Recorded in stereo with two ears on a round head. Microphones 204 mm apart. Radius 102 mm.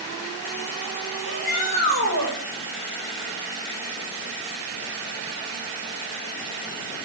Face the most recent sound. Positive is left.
turn(degrees=85)